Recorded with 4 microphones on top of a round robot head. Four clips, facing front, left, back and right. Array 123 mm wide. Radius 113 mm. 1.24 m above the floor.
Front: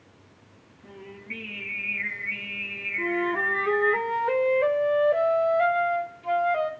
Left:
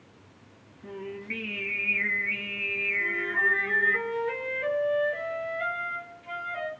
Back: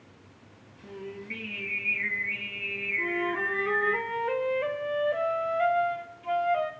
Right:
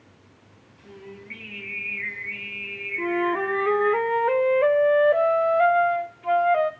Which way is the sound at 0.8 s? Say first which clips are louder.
Left 5 dB, back 3 dB; 95° left.